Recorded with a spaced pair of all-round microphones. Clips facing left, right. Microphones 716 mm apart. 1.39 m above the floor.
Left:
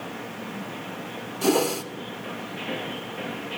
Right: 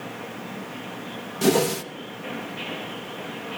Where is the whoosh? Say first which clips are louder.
Right 2 dB; 55° right (ahead or behind), 0.6 m.